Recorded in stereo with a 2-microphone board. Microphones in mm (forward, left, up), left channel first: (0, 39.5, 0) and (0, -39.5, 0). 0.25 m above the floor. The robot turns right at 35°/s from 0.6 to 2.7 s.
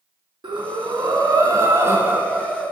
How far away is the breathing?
About 0.5 m.